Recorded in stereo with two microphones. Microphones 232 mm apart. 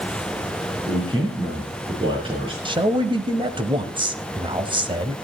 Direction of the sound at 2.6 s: 20° right (ahead or behind).